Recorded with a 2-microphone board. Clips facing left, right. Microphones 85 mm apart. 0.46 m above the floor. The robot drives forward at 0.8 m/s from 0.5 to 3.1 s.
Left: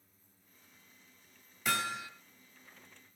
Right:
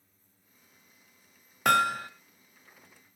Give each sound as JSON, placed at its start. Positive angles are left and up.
{"t": 1.6, "sound": "hammering", "side_deg": -60, "distance_m": 1.1}